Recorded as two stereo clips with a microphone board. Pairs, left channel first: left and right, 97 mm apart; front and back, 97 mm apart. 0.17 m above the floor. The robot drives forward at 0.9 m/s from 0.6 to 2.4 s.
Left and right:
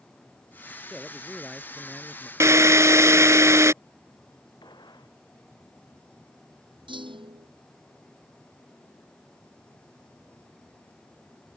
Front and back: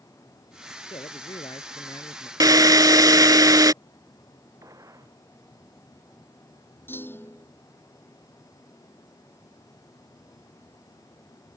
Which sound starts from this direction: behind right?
A drill, at 2.4 s.